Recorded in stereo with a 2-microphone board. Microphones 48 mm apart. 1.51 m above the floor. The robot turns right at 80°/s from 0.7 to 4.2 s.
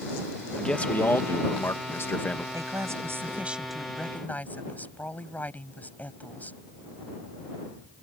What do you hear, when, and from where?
0.6 s a man speaking: 20° left; by 2.4 s 160° left
2.5 s a woman speaking: 100° right; by 6.6 s 35° left